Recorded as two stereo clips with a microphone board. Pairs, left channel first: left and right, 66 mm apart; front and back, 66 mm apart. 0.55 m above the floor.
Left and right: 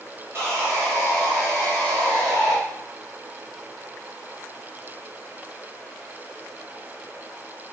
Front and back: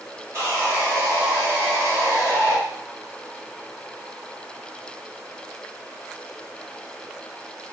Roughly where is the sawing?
Behind right.